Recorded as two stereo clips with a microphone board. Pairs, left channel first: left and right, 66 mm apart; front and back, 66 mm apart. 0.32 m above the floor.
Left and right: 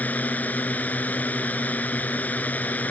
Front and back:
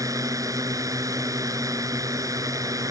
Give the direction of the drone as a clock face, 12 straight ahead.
7 o'clock.